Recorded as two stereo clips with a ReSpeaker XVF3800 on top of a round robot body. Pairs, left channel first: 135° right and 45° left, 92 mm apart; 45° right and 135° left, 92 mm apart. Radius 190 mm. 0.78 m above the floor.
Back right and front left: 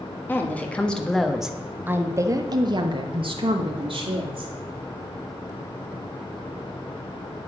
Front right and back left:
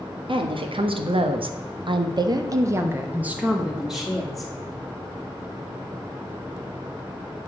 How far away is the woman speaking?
About 1.8 m.